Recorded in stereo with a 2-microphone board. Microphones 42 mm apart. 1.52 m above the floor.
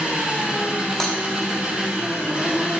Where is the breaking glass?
5° left (ahead or behind), 1.1 m.